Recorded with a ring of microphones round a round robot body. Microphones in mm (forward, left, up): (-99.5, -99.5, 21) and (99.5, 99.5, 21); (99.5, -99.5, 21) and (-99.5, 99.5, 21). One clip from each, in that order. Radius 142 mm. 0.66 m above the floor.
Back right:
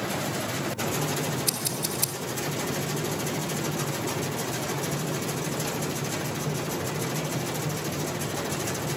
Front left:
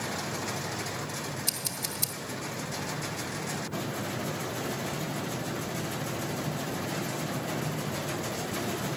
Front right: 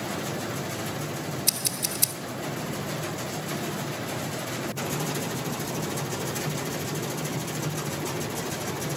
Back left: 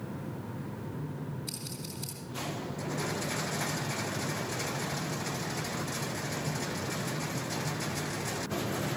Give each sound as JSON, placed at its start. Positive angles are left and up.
{"t": 1.5, "sound": "scissors", "azimuth_deg": -40, "distance_m": 1.7}